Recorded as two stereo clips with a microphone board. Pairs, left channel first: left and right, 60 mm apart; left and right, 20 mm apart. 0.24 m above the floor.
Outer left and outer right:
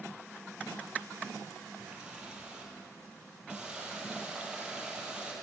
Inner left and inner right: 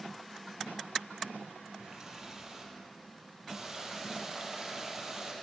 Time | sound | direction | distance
1.8 | a running tap | 15° right (ahead or behind) | 5 m